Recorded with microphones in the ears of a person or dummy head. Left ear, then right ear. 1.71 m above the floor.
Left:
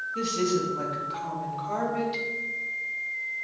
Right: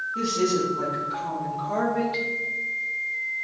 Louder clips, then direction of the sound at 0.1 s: Right 2 dB; 25° left (ahead or behind).